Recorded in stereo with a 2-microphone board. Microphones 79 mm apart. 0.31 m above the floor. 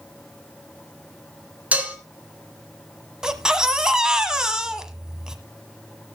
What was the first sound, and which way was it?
Dishes clattering, 20° right (ahead or behind).